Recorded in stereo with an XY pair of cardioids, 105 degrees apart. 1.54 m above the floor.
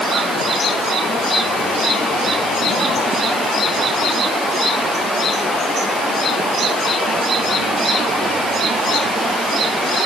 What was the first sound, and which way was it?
Only background noise.